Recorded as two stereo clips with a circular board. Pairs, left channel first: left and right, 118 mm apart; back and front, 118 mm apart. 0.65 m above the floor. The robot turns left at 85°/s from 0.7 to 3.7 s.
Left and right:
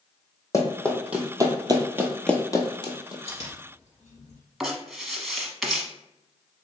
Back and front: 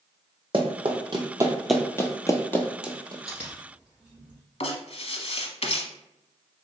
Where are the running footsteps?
30° left, 1.2 m; by 3.1 s 45° left, 0.9 m.